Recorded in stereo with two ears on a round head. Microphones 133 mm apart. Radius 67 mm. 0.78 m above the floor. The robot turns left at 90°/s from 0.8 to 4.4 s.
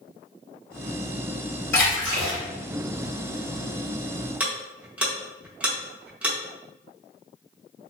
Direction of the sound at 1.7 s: 20° left.